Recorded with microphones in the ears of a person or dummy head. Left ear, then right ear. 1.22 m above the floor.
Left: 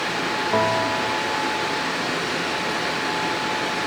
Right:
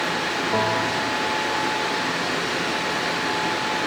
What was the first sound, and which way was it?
A bell, 25° left (ahead or behind).